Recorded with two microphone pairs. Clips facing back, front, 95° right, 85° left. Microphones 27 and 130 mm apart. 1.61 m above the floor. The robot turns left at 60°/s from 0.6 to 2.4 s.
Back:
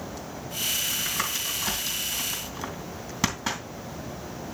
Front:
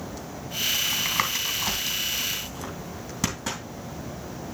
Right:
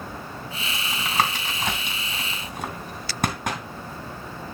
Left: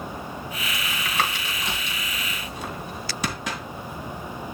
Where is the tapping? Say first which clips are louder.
Front 4 dB, right 3 dB; 15° right, 2.5 m; by 3.6 s 115° right, 2.5 m.